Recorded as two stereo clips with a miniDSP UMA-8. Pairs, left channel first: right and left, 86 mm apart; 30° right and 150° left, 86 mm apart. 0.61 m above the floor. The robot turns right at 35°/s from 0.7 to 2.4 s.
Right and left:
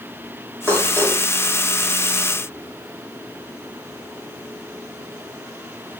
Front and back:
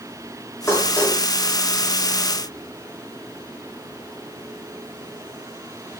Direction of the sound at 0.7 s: 30° left.